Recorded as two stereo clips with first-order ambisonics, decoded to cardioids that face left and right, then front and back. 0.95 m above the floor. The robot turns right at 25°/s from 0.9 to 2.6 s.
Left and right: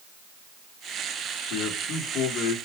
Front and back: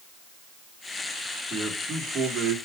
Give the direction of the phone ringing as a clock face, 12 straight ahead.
No phone ringing in this recording.